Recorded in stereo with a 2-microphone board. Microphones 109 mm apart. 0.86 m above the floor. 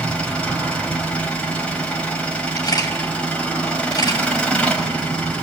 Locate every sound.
0.0 s an engine running: 10° left (ahead or behind), 5 m
2.6 s a camera shutter: 35° left (ahead or behind), 5 m